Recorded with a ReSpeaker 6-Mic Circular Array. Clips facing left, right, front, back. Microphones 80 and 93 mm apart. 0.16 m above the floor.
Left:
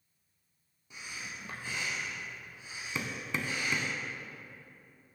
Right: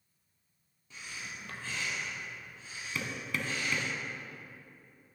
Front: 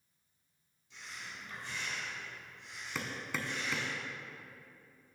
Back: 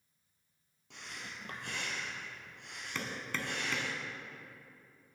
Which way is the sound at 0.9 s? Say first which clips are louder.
Even, back 1 dB; 165° left.